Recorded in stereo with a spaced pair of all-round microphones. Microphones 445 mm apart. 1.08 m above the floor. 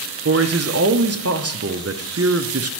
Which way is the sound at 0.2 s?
35° right (ahead or behind).